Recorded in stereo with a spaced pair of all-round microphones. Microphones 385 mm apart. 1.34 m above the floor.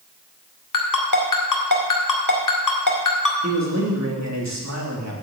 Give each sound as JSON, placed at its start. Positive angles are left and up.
{"t": 0.7, "sound": "a ringtone", "side_deg": 50, "distance_m": 2.0}
{"t": 3.4, "sound": "a man speaking", "side_deg": -45, "distance_m": 2.5}